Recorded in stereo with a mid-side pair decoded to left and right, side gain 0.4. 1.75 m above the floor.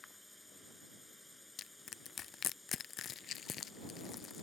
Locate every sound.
0.0 s a drone: 10° left
1.6 s crushing: 65° left